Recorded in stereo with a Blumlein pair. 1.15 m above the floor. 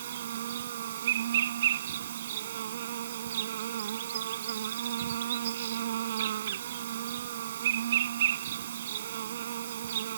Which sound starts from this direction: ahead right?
An insect, at 0.0 s.